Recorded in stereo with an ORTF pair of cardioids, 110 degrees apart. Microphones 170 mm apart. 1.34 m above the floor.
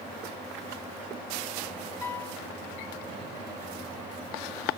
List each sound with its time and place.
2.0 s a piano: 15° left, 2.5 m